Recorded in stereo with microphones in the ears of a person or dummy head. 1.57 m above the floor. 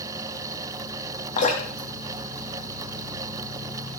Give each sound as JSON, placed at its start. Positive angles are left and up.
{"t": 1.4, "sound": "dripping", "side_deg": 45, "distance_m": 3.0}